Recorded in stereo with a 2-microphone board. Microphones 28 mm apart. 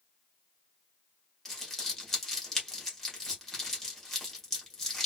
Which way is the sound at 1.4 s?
15° left (ahead or behind).